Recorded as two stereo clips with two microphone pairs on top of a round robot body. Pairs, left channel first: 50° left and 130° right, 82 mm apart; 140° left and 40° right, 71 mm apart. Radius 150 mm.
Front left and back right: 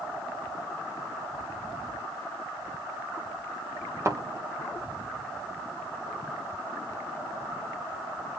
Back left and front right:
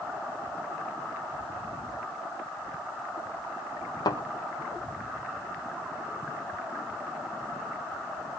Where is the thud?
175° left, 3 m.